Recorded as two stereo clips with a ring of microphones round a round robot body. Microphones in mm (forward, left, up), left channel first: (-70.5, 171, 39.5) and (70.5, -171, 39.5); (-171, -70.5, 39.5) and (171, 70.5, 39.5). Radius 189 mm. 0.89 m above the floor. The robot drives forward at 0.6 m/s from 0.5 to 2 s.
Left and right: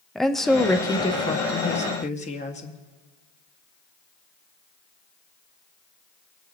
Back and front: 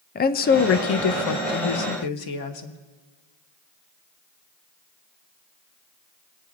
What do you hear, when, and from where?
0.1 s a woman speaking: 160° right, 0.5 m; by 2.8 s 175° right, 1.2 m